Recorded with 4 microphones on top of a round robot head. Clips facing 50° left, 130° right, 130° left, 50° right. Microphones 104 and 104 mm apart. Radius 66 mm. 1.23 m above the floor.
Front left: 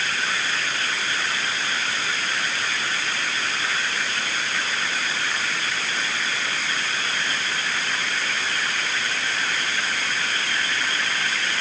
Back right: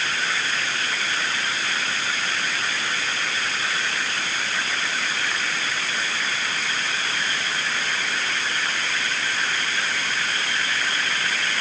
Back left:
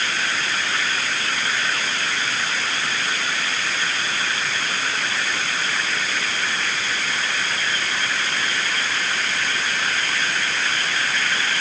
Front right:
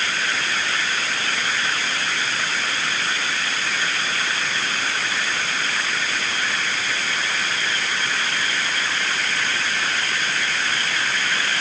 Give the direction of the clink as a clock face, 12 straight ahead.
No clink in this recording.